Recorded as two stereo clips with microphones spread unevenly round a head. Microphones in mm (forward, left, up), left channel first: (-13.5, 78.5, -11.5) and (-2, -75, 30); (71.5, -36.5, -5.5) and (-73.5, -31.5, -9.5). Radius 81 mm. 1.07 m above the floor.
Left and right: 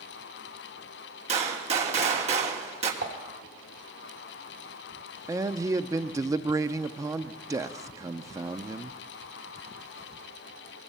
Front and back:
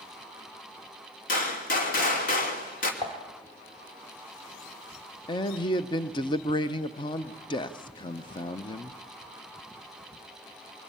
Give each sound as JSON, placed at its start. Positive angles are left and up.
{"t": 1.3, "sound": "a gunshot", "azimuth_deg": -30, "distance_m": 3.0}
{"t": 3.0, "sound": "dishes clattering", "azimuth_deg": -65, "distance_m": 2.5}
{"t": 5.3, "sound": "a man speaking", "azimuth_deg": -5, "distance_m": 0.7}